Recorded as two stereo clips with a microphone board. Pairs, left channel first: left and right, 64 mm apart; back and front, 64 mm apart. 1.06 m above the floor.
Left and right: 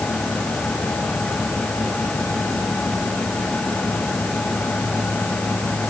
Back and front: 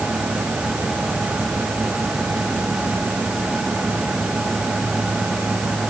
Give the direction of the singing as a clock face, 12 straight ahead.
No singing in this recording.